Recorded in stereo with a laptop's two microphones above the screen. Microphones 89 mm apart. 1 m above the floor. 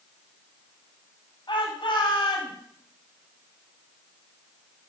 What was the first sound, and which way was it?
A shout, 60° left (ahead or behind).